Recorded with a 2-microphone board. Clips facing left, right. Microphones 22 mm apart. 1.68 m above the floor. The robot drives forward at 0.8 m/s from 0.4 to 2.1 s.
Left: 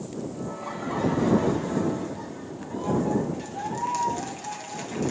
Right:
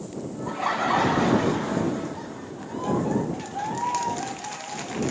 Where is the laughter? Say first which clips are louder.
Right 13 dB; 65° right (ahead or behind), 0.6 m; by 5.1 s 25° right (ahead or behind), 1.3 m.